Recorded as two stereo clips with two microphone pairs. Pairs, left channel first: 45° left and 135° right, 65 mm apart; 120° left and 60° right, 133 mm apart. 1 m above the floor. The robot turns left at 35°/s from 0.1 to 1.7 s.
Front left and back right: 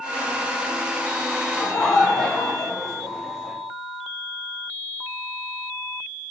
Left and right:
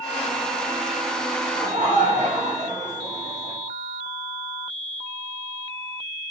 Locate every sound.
1.6 s laughter: 35° right, 1.4 m; by 3.6 s 40° right, 1.4 m